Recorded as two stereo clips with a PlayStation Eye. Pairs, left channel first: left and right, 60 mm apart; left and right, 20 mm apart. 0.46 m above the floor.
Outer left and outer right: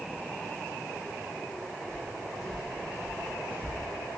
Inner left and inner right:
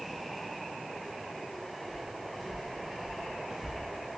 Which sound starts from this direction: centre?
Footsteps, at 1.9 s.